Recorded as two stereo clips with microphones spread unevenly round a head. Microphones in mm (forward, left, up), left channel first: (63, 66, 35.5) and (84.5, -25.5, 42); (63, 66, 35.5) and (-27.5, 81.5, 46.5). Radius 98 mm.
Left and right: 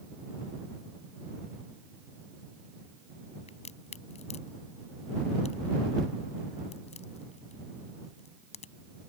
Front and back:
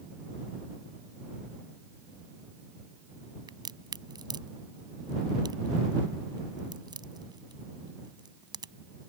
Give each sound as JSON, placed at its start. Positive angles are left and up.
{"t": 3.5, "sound": "a crack", "azimuth_deg": 130}